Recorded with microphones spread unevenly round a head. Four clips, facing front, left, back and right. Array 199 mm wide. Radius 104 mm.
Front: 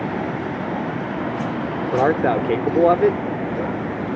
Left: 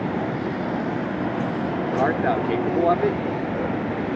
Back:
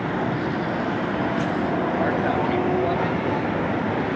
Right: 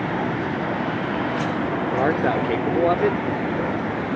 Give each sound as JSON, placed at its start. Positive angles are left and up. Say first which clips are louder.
{"t": 1.9, "sound": "a man speaking", "louder": "even, front 4 dB", "azimuth_deg": -15}